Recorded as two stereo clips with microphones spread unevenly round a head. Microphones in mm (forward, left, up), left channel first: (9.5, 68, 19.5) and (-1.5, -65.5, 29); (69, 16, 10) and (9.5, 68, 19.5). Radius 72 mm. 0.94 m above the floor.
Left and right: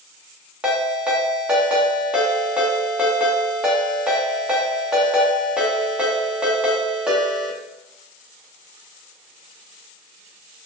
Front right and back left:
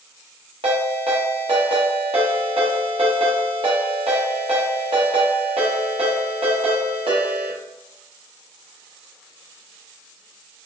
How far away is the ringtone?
About 0.8 m.